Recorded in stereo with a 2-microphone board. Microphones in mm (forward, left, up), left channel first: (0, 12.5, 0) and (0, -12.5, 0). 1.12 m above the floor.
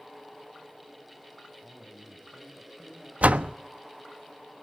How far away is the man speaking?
About 6.5 m.